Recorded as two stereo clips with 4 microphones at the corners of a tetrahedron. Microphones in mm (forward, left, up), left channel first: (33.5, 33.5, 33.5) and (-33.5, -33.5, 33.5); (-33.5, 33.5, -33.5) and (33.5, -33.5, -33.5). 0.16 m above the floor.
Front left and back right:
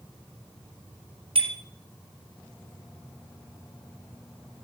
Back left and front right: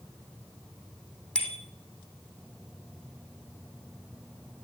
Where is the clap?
No clap in this recording.